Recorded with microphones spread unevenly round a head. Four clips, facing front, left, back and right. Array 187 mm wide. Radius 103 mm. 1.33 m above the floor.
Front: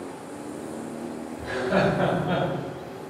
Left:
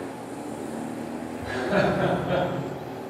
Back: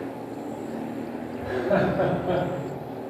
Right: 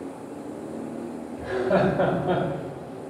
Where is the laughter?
135° right, 4.5 m; by 2.4 s 120° right, 5 m.